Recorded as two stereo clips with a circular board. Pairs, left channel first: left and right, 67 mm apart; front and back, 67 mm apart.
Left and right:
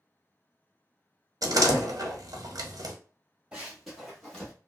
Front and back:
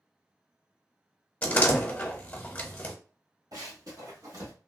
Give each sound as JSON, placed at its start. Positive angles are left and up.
{"t": 1.4, "sound": "a door slam", "azimuth_deg": -70, "distance_m": 0.9}
{"t": 3.5, "sound": "running footsteps", "azimuth_deg": -165, "distance_m": 2.0}